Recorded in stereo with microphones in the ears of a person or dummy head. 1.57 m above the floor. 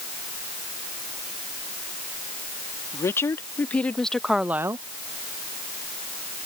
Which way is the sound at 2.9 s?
20° left (ahead or behind).